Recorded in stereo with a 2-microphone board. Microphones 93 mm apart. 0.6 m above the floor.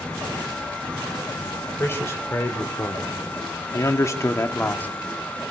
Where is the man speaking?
25° left (ahead or behind), 3 m; by 4.9 s 20° left (ahead or behind), 1.7 m.